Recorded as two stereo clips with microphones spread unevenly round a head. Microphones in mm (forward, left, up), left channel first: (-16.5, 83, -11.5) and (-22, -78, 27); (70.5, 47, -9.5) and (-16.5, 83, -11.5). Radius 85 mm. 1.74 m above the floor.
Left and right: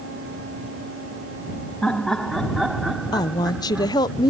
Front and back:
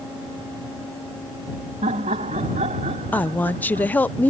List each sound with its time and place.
1.8 s laughter: 175° left; by 4.1 s 170° right
3.1 s a woman speaking: 20° left